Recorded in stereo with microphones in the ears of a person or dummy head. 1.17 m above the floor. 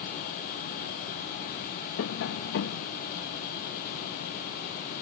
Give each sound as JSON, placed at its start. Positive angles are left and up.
{"t": 2.0, "sound": "tapping", "side_deg": 60}